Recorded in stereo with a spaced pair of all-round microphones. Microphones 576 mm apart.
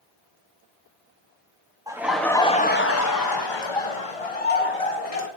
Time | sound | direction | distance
1.9 | laughter | 5° right (ahead or behind) | 1.4 m